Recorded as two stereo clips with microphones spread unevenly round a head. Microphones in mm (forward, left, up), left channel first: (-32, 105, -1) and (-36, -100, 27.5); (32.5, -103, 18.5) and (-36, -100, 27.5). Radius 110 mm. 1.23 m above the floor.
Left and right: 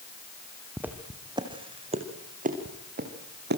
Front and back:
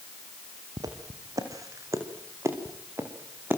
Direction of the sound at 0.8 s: 170° right.